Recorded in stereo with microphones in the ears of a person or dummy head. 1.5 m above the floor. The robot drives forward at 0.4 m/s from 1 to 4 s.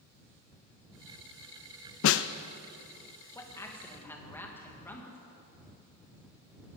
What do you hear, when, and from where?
2.0 s a snare drum: 70° left (ahead or behind), 0.5 m; by 2.3 s 60° left (ahead or behind), 0.5 m
3.4 s a man speaking: 15° left (ahead or behind), 1.9 m